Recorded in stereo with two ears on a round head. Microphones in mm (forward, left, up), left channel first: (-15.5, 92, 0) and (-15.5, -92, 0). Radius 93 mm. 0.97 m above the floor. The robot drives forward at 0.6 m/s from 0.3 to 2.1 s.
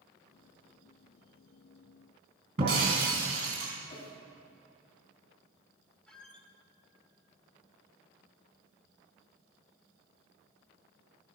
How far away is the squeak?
About 1.3 m.